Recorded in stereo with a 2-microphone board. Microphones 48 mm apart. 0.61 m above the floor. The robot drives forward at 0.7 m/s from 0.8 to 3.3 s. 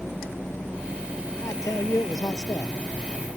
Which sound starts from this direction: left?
A man speaking, at 1.4 s.